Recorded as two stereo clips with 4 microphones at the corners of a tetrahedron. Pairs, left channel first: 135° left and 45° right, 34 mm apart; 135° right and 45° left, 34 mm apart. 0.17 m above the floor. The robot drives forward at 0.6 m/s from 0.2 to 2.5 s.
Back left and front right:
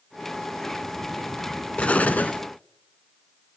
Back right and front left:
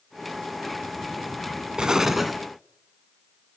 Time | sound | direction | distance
1.8 | an explosion | 105° left | 0.5 m